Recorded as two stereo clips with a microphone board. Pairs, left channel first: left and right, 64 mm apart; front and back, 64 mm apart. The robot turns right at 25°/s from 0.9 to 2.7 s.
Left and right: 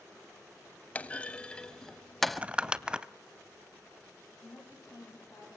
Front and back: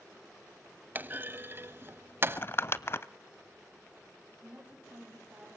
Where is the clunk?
145° left, 0.5 m; by 2.4 s straight behind, 0.5 m.